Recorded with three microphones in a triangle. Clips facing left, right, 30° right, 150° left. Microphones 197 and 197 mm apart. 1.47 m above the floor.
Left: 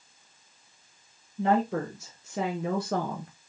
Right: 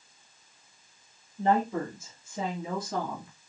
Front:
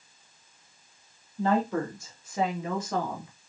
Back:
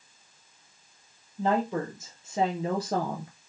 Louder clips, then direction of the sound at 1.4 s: Left 1 dB, front 1 dB; 75° left.